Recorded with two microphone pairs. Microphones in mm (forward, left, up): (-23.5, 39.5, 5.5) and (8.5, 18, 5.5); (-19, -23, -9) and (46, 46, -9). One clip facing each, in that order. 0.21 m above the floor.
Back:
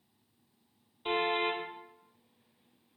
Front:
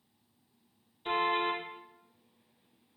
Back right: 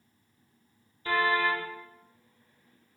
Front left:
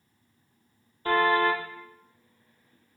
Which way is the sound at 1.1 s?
85° left.